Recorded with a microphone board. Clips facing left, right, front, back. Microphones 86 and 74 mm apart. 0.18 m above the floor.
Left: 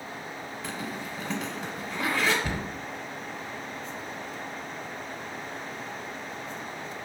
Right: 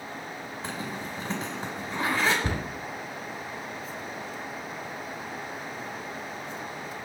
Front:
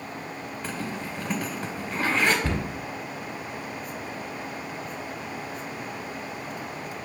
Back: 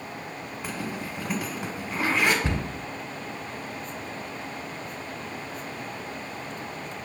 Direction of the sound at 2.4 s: 120° right.